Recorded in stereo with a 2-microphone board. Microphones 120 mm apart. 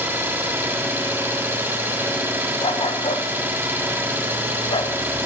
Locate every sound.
0.0 s an engine running: 20° right (ahead or behind), 1.9 m
2.6 s a dog barking: 50° left (ahead or behind), 0.8 m